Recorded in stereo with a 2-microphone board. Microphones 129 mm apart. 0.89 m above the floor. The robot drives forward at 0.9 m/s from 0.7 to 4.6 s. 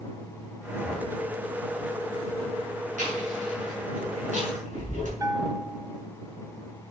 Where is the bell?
25° right (ahead or behind), 0.9 m.